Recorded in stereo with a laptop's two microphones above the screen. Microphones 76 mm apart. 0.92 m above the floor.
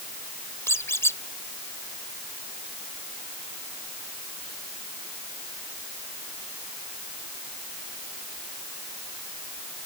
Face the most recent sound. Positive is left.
turn(degrees=35)  # may be behind; listen again after turning